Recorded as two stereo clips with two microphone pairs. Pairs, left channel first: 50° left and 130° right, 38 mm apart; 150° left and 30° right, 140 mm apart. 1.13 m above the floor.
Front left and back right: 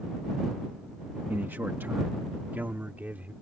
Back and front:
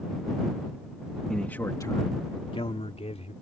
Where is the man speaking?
125° right; by 3.3 s 175° right.